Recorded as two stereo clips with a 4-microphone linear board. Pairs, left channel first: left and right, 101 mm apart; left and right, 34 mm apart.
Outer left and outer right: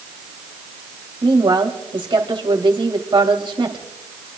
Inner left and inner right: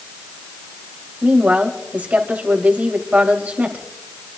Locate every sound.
1.2 s a woman speaking: 55° right (ahead or behind), 3.5 m